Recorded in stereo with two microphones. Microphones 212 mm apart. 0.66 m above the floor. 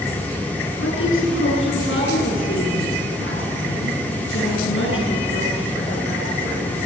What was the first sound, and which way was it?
A woman speaking, 70° left (ahead or behind).